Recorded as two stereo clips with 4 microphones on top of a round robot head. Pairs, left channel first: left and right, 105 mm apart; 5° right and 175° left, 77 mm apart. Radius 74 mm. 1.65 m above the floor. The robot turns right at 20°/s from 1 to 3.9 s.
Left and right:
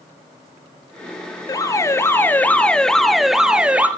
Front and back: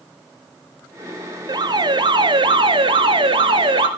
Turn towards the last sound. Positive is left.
turn(degrees=-165)